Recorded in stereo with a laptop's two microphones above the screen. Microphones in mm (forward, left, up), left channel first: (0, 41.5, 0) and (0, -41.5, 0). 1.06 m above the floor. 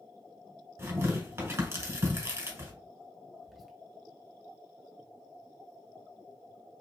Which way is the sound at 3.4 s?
Centre (ahead or behind).